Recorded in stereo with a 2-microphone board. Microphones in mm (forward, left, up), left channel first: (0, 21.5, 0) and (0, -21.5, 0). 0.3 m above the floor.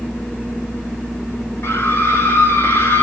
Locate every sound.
1.6 s a scream: 65° left (ahead or behind), 4 m